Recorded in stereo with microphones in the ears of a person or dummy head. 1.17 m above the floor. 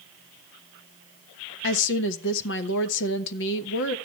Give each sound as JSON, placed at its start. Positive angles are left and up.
{"t": 1.6, "sound": "a woman speaking", "side_deg": 70, "distance_m": 1.2}